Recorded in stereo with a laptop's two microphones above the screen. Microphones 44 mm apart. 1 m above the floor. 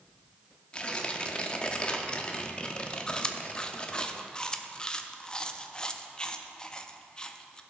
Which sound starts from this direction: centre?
Chewing, at 3.1 s.